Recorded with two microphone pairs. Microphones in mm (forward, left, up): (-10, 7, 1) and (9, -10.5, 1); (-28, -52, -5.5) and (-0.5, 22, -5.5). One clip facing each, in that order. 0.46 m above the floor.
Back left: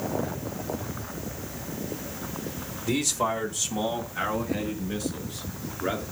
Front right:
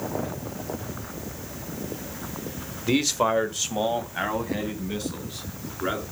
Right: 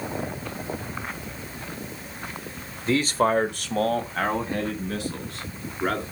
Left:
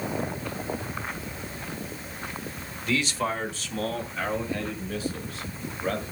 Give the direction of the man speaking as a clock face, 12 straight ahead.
3 o'clock.